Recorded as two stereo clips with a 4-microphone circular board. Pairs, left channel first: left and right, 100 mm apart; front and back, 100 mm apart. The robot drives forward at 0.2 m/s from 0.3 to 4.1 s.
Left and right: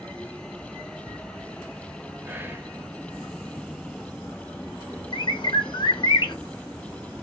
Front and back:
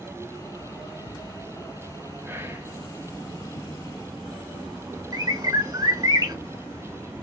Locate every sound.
2.2 s whispering: 135° right, 0.6 m; by 2.8 s 145° right, 0.7 m
5.1 s a bird: 130° left, 0.6 m